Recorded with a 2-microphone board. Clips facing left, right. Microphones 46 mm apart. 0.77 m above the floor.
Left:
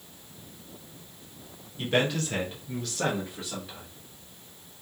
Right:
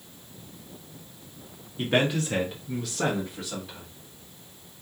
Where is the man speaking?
25° right (ahead or behind), 0.8 m; by 3.9 s 5° left (ahead or behind), 1.3 m.